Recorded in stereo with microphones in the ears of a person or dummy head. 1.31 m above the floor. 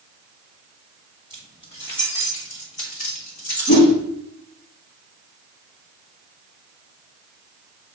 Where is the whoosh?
50° left (ahead or behind), 4 m.